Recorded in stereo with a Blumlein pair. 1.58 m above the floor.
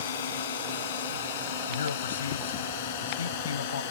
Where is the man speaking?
70° left.